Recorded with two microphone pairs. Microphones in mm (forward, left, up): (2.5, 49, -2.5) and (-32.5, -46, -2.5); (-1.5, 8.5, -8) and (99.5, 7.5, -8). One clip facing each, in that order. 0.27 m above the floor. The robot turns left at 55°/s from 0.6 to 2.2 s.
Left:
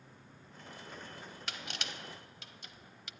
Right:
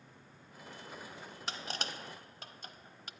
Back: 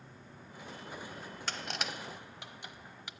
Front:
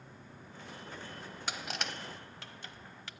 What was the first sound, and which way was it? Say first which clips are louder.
Crushing: right 4 dB, even; 70° right.